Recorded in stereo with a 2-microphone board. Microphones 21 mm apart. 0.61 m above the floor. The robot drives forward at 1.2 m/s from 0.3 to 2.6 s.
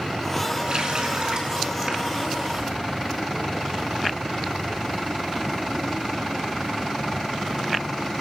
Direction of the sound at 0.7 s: 40° right (ahead or behind).